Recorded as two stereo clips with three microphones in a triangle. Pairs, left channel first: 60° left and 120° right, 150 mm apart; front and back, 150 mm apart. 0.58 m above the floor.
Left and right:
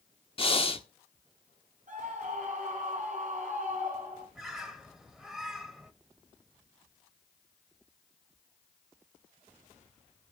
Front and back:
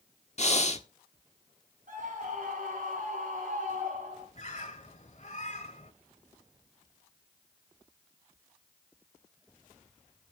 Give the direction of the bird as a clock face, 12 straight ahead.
1 o'clock.